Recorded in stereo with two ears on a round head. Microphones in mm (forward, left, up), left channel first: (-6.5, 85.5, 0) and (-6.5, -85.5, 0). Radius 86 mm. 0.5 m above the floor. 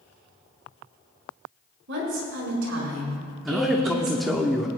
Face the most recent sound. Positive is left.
turn(degrees=0)  # may be behind; listen again after turning